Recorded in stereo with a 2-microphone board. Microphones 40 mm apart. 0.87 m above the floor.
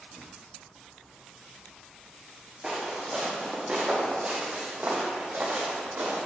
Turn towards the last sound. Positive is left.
turn(degrees=-65)  # may be behind; listen again after turning